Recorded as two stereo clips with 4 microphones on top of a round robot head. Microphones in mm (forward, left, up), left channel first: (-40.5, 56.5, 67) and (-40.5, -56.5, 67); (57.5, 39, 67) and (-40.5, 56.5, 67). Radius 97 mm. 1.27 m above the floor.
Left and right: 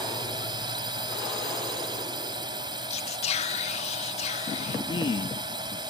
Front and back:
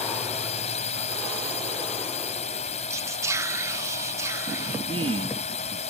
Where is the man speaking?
140° left.